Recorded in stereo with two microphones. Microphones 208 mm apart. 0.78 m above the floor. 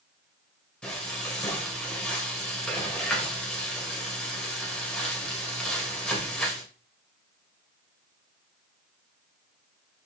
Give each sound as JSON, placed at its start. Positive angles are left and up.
{"t": 0.8, "sound": "frying", "side_deg": 5, "distance_m": 3.0}